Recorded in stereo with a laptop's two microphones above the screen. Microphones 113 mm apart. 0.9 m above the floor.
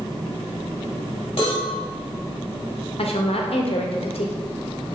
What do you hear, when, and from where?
1.4 s a cowbell: 60° left (ahead or behind), 1.4 m
3.0 s a woman speaking: 65° left (ahead or behind), 0.6 m